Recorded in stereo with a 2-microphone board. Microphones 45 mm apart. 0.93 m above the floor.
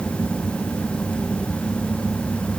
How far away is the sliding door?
I don't hear a sliding door.